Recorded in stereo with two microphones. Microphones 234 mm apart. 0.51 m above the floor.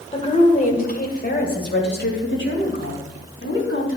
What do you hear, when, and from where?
0.1 s a woman speaking: 25° left (ahead or behind), 1.9 m; by 4.0 s 65° left (ahead or behind), 4 m